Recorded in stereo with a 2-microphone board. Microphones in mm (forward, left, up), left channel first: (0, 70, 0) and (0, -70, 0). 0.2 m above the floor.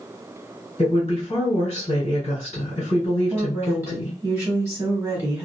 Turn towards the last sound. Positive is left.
turn(degrees=-20)  # may be behind; listen again after turning